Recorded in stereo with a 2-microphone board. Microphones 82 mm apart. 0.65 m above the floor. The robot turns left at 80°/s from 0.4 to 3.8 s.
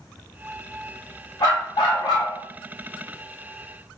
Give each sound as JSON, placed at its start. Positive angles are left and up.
{"t": 1.4, "sound": "a dog barking", "azimuth_deg": 125, "distance_m": 1.3}